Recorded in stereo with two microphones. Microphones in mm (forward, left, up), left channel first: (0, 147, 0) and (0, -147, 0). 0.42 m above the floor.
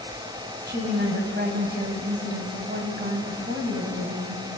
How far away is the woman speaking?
About 3 m.